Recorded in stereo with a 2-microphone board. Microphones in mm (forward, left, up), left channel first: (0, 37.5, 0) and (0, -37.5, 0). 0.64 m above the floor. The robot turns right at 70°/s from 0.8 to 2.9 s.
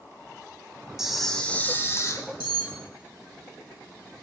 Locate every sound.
1.0 s a camera shutter: 10° right, 0.6 m; by 2.2 s 75° left, 0.6 m
2.4 s cutlery clinking: 75° left (ahead or behind), 1.2 m; by 2.8 s 55° left (ahead or behind), 1.2 m